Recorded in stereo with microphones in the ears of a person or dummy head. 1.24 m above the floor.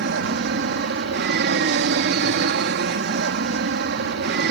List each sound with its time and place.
0.0 s an aircraft: 55° right (ahead or behind)